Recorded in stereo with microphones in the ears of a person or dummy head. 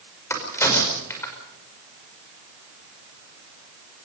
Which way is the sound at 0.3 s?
10° left (ahead or behind).